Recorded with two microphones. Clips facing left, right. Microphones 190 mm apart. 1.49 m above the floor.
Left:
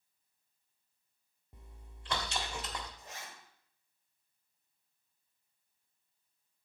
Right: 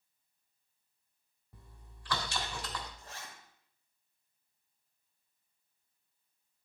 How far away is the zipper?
About 3 m.